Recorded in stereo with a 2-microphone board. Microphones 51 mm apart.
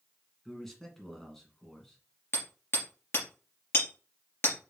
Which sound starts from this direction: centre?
A man speaking, at 0.5 s.